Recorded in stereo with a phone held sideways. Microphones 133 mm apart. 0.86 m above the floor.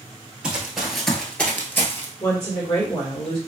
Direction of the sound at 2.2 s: 35° left (ahead or behind).